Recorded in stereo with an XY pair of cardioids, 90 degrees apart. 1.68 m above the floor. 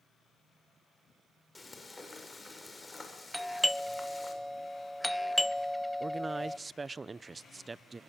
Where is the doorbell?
Straight ahead, 0.6 m.